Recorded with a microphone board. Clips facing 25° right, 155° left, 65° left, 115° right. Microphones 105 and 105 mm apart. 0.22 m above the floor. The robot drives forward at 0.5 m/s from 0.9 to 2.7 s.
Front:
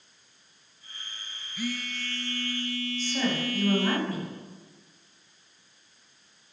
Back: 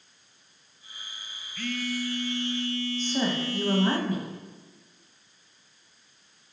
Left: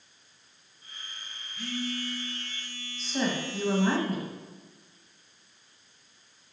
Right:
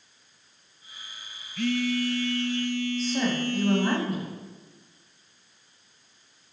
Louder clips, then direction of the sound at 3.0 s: Even, left 2 dB; 165° left.